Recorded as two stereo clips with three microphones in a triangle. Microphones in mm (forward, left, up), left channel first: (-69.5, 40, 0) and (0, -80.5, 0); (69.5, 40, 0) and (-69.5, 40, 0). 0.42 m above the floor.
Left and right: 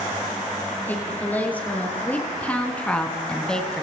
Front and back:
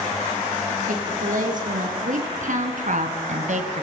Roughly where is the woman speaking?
Behind.